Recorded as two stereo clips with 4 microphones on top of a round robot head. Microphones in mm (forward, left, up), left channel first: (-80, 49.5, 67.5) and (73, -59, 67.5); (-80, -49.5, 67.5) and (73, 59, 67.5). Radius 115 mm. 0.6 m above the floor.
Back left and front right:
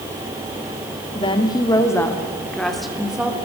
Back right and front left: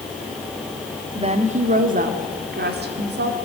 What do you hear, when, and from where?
1.1 s a woman speaking: 90° left, 1.9 m; by 3.4 s 50° left, 2.5 m